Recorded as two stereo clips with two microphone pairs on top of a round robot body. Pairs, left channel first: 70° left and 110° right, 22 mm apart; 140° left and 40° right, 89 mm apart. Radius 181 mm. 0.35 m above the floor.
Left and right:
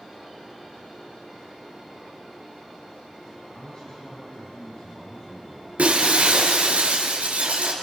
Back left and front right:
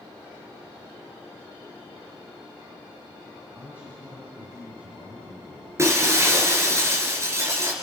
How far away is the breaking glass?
About 4 m.